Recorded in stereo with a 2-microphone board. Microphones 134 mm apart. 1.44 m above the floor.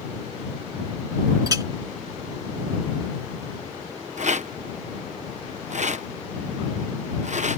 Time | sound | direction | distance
1.5 | a clink | 30° right (ahead or behind) | ?
4.2 | a rattle | 60° right (ahead or behind) | ?